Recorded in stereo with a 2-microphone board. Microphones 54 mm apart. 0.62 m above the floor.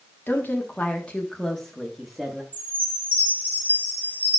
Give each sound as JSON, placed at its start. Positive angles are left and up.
{"t": 0.3, "sound": "a woman speaking", "side_deg": 40, "distance_m": 1.2}
{"t": 2.5, "sound": "a chime", "side_deg": -25, "distance_m": 1.3}